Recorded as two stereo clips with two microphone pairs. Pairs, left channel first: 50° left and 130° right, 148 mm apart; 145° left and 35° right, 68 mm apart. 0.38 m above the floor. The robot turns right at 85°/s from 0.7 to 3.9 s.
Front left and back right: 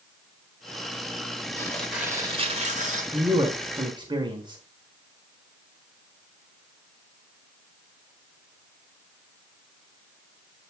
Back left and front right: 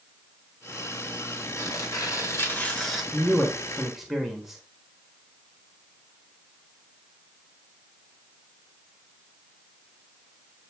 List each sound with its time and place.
1.6 s tearing paper: 110° left, 2.5 m; by 3.0 s 125° right, 2.5 m
3.1 s a man speaking: 175° left, 1.4 m; by 4.6 s 120° right, 1.4 m